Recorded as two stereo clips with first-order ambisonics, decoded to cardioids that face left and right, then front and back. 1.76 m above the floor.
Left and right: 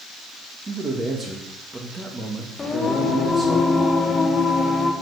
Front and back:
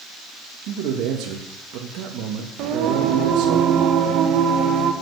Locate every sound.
0.7 s a man speaking: 160° right, 2.0 m
2.6 s singing: 160° left, 1.2 m